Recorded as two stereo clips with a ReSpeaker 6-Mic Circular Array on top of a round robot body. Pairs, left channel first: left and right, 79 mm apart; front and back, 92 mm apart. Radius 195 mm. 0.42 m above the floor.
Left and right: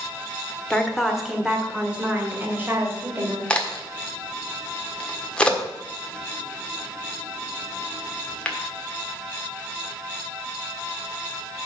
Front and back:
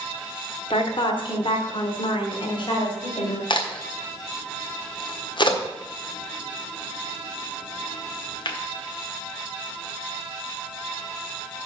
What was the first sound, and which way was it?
A woman speaking, 5° left.